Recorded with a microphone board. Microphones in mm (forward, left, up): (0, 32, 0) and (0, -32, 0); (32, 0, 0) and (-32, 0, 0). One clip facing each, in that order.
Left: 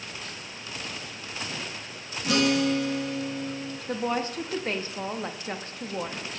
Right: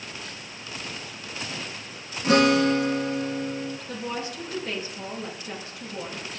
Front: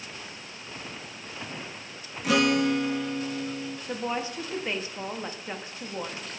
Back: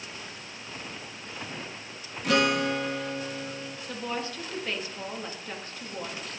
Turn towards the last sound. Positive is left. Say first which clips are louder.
# left 4 dB, front 2 dB
turn(degrees=65)